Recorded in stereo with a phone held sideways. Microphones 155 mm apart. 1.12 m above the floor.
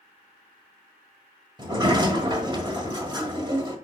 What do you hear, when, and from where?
1.6 s a sliding door: 30° right (ahead or behind), 1.5 m